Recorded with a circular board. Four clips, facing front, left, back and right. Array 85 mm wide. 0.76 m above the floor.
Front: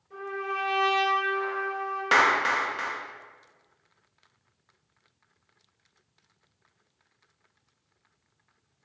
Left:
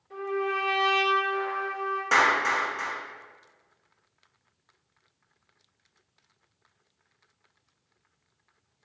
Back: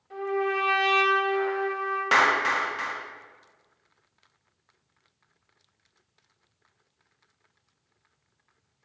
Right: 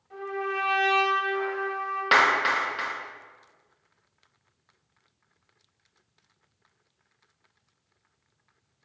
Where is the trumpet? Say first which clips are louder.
Left 2 dB, back 6 dB; straight behind, 1.8 m.